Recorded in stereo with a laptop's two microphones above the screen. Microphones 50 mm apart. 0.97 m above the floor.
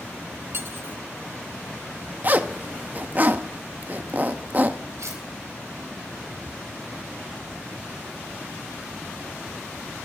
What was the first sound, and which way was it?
Cutlery clinking, 55° right (ahead or behind).